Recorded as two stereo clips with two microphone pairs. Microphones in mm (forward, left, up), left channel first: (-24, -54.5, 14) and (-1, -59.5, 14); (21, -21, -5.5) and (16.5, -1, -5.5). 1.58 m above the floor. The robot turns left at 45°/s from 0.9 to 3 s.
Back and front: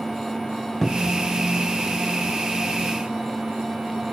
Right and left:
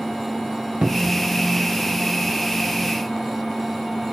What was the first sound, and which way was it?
A cupboard door, 95° left.